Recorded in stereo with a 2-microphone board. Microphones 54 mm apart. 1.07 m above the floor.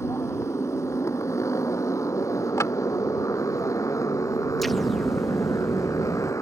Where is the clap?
85° left.